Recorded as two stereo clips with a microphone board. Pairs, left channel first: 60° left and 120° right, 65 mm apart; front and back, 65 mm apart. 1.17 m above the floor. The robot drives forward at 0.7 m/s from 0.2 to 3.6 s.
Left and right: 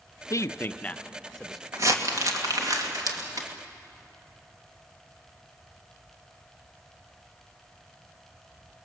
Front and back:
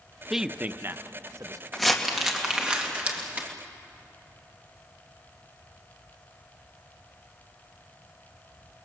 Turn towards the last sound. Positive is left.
turn(degrees=-120)